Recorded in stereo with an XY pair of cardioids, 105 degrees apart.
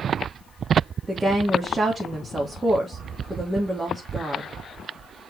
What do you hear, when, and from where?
1.1 s a woman speaking: 25° right, 2.5 m